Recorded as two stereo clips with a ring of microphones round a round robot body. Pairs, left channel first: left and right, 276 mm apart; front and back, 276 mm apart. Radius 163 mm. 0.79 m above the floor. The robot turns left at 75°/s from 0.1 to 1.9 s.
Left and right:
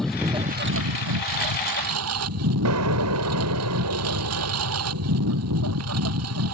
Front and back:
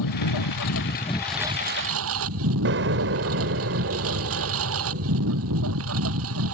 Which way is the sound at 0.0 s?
Straight ahead.